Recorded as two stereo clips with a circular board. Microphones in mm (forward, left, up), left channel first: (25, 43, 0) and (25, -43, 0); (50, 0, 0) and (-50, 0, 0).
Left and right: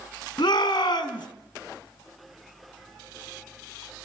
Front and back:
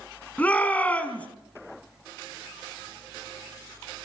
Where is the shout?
75° left, 4 m.